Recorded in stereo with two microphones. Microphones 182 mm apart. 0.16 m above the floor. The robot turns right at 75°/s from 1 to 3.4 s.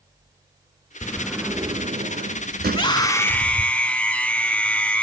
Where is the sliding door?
160° left, 0.7 m; by 3.7 s 20° right, 0.7 m.